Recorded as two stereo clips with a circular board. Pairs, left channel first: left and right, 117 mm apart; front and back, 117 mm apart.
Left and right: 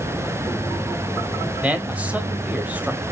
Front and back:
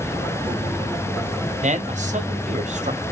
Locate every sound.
1.6 s a man speaking: 170° right, 1.4 m